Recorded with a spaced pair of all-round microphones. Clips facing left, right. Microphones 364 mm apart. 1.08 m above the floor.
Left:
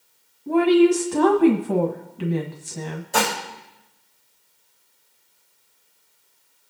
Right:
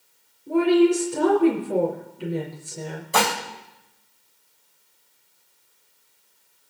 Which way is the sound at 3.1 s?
5° right (ahead or behind).